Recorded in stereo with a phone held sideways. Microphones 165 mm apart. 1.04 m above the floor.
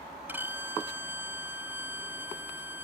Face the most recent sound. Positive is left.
turn(degrees=-10)  # may be behind; listen again after turning